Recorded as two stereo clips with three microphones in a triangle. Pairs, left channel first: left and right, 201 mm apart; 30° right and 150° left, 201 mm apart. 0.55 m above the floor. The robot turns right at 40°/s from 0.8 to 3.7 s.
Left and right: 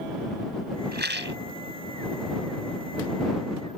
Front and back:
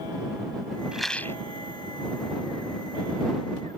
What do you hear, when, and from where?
0.9 s a rattle: 125° right; by 1.4 s 105° right